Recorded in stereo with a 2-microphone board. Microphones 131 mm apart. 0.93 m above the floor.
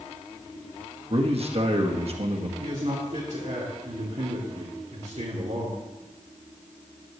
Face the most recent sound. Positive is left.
turn(degrees=-55)  # may be behind; listen again after turning